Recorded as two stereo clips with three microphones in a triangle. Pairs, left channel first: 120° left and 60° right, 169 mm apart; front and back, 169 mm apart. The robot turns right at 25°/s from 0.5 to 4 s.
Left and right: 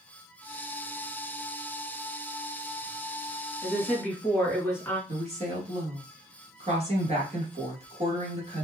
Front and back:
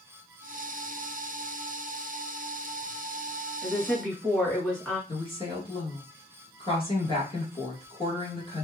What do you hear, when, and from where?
3.6 s a woman speaking: 55° left, 1.6 m; by 5.0 s 65° left, 1.6 m
5.1 s a woman speaking: 40° right, 1.7 m